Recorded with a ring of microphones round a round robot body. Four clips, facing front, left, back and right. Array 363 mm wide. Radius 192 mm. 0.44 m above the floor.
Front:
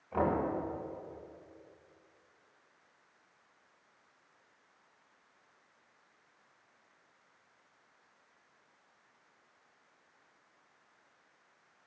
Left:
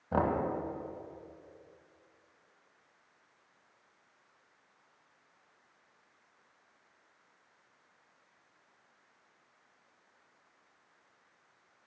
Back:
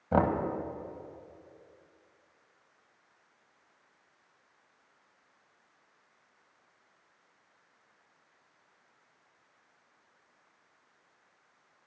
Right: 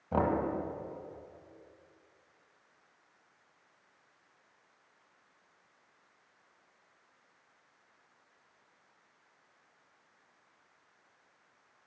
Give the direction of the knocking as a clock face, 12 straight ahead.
6 o'clock.